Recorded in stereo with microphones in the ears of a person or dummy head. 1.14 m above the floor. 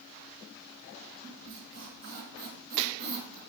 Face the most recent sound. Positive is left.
turn(degrees=-50)  # may be behind; listen again after turning